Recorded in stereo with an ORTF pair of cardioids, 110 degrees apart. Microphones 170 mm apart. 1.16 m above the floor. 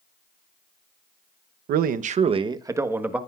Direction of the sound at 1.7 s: 70° right.